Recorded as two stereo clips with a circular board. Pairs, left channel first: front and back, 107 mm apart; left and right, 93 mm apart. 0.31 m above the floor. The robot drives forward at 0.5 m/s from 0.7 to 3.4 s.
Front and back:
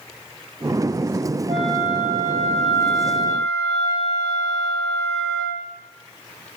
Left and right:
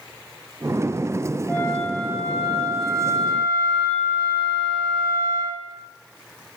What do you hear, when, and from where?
1.5 s a flute: 160° left, 8.5 m; by 5.6 s 165° left, 9.5 m